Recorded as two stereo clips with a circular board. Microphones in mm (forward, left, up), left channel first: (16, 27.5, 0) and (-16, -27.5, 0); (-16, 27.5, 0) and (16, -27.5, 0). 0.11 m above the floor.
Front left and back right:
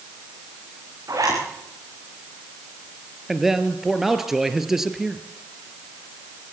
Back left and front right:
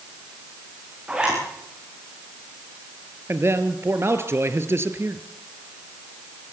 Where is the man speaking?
40° right, 1.6 m.